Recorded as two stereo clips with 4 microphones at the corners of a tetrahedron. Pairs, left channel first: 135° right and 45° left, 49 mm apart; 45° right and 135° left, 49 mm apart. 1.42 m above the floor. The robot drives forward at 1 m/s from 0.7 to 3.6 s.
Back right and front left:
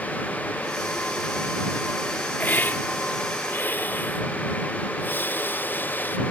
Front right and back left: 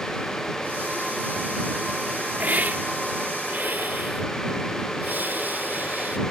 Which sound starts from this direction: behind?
A hiss, at 2.4 s.